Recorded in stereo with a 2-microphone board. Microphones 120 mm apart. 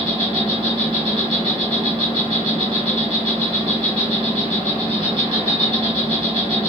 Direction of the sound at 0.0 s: 40° right (ahead or behind).